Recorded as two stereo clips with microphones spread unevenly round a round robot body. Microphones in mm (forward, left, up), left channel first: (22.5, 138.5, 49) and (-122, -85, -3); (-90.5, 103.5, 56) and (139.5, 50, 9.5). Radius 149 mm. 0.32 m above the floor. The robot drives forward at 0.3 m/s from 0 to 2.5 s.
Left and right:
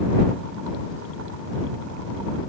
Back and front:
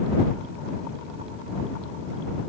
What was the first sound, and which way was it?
Only background noise.